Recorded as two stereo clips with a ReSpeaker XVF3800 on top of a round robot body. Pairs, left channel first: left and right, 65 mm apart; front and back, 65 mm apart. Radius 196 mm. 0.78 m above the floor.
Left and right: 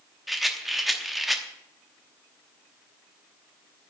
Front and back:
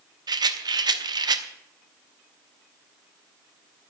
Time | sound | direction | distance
0.3 | a rattle | straight behind | 1.0 m